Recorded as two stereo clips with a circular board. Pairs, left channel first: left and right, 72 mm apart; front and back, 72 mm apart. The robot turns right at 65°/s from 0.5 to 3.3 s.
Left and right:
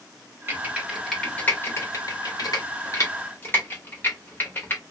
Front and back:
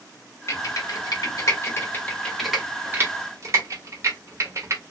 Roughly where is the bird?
No bird in this recording.